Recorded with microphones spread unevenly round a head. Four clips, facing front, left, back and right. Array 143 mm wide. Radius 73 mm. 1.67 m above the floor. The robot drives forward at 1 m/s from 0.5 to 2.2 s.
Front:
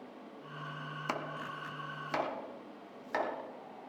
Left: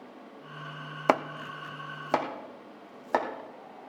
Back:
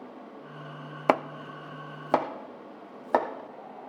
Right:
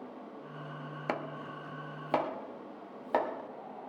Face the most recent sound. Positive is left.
turn(degrees=165)